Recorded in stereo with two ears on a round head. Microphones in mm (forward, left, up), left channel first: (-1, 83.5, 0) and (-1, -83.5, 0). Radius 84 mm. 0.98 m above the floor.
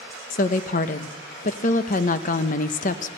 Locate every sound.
0.3 s a woman speaking: 45° left (ahead or behind), 0.8 m